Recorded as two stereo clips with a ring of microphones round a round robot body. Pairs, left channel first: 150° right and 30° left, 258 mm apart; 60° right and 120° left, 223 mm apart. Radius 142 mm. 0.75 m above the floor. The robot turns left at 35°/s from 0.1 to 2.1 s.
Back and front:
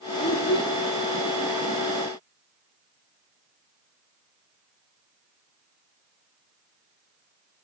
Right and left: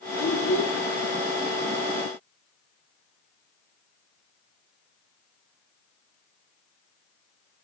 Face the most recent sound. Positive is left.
turn(degrees=-155)